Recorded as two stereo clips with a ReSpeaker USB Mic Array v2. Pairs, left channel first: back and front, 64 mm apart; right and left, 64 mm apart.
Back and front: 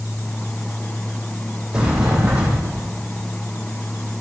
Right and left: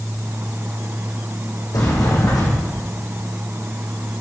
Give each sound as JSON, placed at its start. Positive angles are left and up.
{"t": 1.7, "sound": "a sliding door", "azimuth_deg": -75, "distance_m": 4.5}